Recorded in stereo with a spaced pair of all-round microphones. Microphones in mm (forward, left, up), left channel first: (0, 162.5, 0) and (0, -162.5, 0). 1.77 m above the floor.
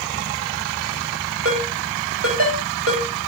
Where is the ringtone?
45° right (ahead or behind), 6 m.